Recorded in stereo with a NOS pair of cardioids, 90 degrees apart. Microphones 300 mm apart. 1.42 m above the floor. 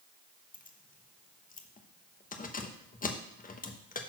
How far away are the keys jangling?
About 1.1 m.